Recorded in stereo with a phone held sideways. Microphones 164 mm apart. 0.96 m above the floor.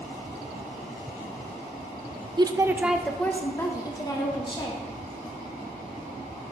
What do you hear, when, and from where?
2.4 s a woman speaking: 30° right (ahead or behind), 0.5 m; by 4.8 s 30° left (ahead or behind), 1.3 m